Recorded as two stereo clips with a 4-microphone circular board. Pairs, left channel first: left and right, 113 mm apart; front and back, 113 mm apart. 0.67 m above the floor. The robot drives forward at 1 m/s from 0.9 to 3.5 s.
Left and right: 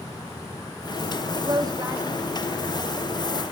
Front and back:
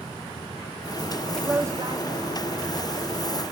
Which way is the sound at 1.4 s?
85° right.